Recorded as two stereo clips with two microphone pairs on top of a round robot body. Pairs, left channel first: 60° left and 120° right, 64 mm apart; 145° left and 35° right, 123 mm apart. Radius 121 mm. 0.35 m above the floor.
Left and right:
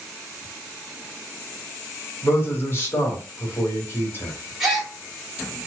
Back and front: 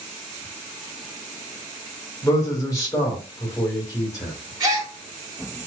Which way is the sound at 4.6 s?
40° right.